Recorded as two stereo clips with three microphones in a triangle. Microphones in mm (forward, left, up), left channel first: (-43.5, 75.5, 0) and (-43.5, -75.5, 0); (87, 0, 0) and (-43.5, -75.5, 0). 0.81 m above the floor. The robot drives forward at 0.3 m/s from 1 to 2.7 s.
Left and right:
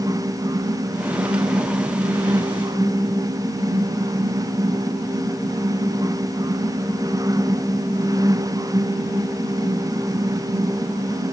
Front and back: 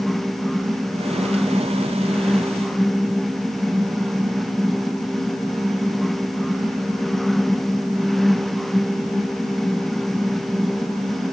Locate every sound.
Only background noise.